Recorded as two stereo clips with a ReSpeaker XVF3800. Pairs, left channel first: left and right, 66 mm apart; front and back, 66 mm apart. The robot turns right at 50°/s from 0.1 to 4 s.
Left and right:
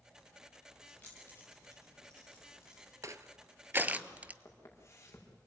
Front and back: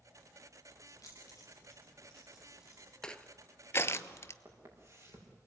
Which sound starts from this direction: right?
Crushing, at 3.0 s.